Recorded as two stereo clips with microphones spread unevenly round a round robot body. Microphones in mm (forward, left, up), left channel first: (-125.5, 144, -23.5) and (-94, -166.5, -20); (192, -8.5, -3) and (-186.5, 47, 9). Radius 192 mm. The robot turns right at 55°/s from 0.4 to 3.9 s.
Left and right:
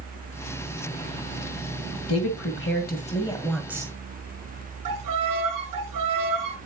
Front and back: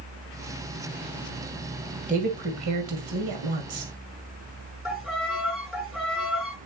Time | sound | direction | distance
2.1 | a woman speaking | 105° left | 2.0 m
4.8 | a violin | 100° right | 4 m